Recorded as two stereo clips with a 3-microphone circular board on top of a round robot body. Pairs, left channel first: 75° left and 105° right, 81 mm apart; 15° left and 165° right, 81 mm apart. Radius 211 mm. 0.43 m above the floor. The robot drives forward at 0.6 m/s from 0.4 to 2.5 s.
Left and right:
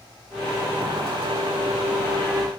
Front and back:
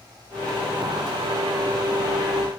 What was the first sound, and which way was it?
Only background noise.